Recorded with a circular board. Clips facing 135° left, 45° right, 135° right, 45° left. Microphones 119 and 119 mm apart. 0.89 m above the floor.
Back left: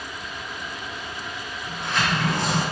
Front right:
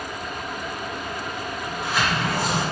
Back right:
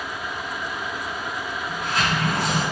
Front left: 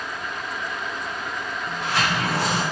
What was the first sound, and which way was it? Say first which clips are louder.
A sliding door: even, front left 1 dB; 40° left.